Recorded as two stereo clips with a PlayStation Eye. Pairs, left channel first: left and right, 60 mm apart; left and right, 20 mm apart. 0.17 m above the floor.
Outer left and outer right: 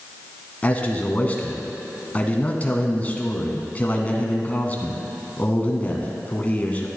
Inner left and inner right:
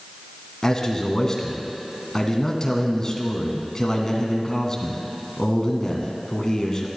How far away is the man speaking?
About 1.2 m.